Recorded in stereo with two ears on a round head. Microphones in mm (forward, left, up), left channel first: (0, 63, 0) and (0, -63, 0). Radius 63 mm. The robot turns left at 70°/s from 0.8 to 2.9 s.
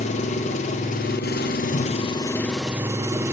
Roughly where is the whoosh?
Left.